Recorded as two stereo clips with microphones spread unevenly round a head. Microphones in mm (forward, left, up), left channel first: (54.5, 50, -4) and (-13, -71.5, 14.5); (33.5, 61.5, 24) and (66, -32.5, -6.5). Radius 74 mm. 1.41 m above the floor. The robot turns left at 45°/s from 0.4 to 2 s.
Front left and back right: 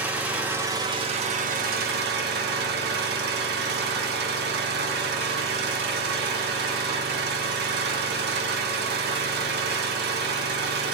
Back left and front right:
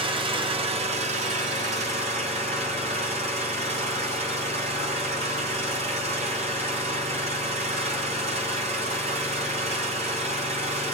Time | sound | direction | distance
0.0 | an engine running | 35° right | 0.8 m